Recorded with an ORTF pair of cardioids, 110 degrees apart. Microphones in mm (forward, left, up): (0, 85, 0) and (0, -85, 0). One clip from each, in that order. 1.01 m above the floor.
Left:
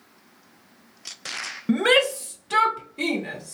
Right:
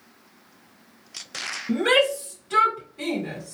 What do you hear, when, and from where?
1.7 s a shout: 55° left, 0.8 m; by 3.5 s 40° left, 2.0 m